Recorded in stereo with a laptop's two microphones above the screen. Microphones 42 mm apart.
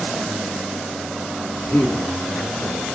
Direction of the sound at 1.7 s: 70° left (ahead or behind).